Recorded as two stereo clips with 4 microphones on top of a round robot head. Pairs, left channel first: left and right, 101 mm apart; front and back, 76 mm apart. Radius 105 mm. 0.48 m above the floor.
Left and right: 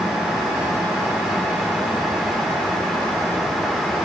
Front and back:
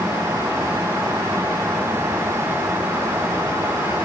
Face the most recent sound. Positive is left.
No sound to turn to.